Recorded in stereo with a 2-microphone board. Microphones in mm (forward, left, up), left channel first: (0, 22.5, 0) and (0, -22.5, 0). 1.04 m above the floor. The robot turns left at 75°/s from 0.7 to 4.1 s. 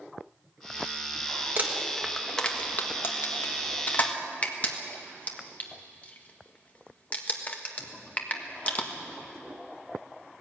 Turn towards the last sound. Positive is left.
turn(degrees=30)  # may be behind; listen again after turning